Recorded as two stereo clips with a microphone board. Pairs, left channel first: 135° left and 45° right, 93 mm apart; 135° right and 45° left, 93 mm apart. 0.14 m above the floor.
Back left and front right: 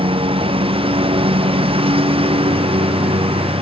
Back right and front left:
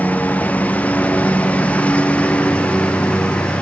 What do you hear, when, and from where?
0.0 s a lawn mower: 60° right; by 3.6 s 55° right